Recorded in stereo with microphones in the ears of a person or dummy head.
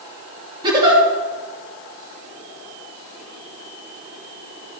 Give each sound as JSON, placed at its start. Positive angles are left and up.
{"t": 0.6, "sound": "a giggle", "side_deg": -15, "distance_m": 2.5}